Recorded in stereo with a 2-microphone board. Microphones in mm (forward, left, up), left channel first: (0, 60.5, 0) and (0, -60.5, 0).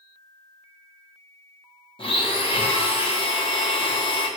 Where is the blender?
45° left (ahead or behind), 0.8 m.